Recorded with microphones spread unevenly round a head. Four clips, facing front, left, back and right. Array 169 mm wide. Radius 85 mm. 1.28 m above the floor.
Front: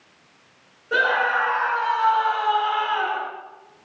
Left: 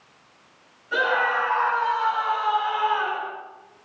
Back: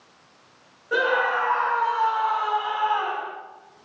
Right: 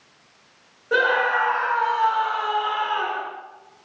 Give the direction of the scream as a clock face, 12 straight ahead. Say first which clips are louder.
Right 2 dB, front 1 dB; 3 o'clock.